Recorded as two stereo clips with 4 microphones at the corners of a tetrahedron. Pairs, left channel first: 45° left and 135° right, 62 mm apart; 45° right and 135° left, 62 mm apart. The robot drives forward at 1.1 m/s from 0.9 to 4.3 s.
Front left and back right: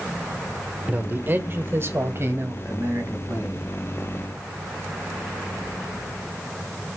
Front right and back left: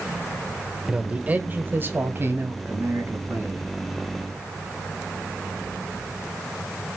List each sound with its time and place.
0.9 s a man speaking: 170° right, 1.0 m; by 3.7 s straight behind, 3.5 m